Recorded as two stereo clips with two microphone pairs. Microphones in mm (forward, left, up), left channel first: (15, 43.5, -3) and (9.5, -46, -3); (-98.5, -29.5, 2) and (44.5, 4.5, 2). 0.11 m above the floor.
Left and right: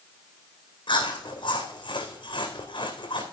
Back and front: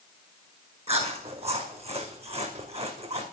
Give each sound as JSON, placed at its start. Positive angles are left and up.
{"t": 0.9, "sound": "chewing", "azimuth_deg": 60, "distance_m": 2.0}